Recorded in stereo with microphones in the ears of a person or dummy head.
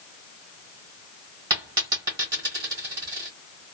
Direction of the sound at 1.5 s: 15° right (ahead or behind).